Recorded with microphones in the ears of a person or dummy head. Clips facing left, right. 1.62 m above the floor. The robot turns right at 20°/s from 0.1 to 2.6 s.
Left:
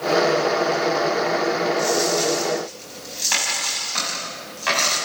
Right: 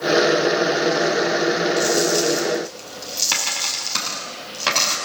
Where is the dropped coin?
80° right, 6 m; by 5.0 s 65° right (ahead or behind), 6 m.